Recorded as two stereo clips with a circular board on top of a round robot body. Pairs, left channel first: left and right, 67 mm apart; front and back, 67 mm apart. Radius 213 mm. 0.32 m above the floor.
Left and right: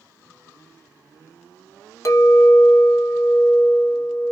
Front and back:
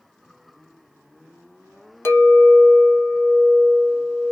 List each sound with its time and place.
2.0 s a clink: 55° left, 1.1 m